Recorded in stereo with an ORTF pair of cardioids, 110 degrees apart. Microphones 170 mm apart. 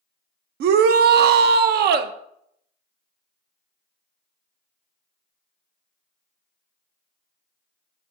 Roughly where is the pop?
I don't hear a pop.